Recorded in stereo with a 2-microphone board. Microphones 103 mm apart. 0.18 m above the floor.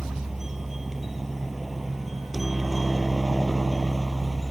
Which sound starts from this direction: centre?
A helicopter, at 0.0 s.